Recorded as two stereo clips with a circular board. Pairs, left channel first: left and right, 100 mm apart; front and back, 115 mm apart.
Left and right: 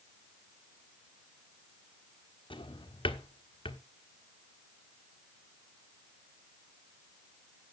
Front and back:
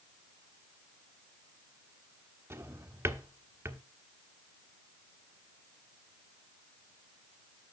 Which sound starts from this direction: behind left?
A drawer, at 2.5 s.